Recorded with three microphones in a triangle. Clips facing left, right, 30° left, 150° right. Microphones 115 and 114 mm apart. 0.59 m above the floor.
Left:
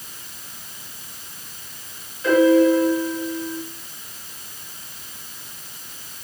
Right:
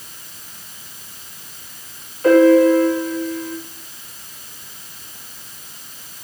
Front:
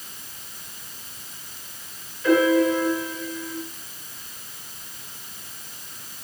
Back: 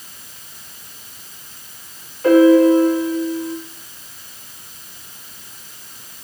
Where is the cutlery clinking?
No cutlery clinking in this recording.